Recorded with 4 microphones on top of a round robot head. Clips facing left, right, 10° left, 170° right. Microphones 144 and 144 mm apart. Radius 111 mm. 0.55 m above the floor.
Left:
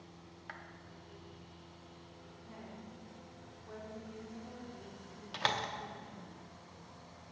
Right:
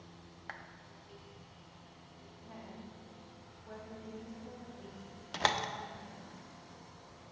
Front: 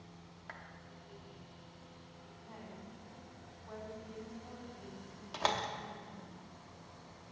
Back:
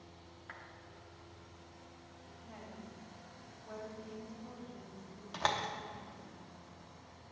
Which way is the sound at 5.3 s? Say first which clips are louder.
Right 3 dB, front 1 dB; 70° right.